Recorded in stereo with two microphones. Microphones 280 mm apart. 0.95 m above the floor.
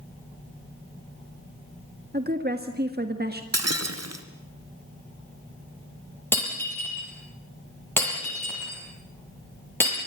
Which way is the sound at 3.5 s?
65° right (ahead or behind).